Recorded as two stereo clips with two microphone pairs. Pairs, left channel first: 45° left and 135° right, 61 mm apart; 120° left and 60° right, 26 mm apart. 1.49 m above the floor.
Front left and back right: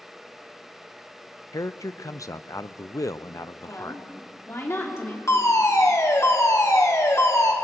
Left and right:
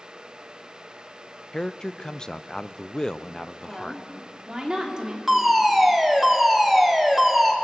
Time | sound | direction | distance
1.5 | a man speaking | 60° left | 0.6 m
3.6 | a woman speaking | straight ahead | 3.5 m
5.3 | a fire alarm | 20° left | 2 m